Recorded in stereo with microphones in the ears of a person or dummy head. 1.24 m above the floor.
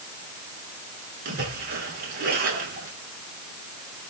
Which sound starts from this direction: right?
A splash, at 1.2 s.